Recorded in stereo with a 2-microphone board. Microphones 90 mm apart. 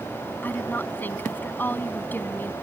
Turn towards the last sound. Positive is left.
turn(degrees=20)  # may be behind; listen again after turning